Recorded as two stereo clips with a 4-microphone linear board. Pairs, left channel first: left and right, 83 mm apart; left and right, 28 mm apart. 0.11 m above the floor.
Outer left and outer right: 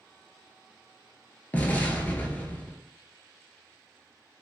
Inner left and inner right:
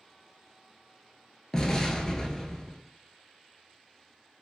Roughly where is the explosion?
Left.